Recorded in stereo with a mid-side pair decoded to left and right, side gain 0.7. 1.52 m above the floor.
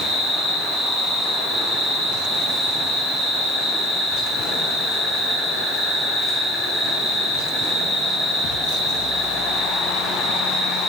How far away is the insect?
About 0.8 m.